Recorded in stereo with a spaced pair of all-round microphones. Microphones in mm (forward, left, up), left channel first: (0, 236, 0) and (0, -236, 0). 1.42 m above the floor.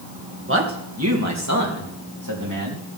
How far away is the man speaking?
About 1.9 m.